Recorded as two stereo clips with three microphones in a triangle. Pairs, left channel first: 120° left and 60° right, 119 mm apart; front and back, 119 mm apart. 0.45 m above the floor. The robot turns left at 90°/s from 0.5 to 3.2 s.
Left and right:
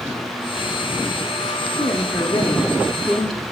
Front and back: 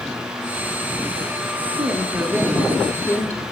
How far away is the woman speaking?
About 0.8 m.